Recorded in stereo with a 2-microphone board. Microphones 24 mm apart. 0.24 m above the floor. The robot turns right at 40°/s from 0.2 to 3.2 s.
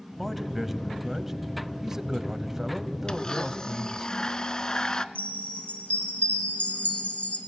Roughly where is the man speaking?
Centre.